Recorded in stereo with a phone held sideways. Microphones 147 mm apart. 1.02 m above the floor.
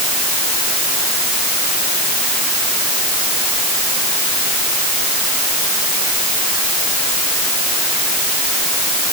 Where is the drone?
I don't hear a drone.